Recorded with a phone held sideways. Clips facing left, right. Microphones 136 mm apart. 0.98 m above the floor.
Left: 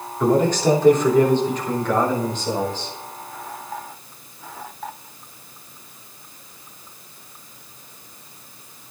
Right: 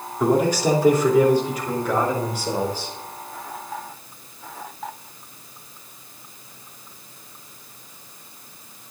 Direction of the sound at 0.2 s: 10° right (ahead or behind).